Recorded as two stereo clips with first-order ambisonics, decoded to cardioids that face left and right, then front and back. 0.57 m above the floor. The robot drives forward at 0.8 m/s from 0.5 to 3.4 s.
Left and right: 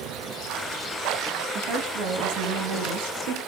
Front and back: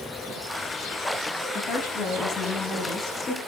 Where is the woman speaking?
55° right, 5 m; by 3.4 s 75° right, 4 m.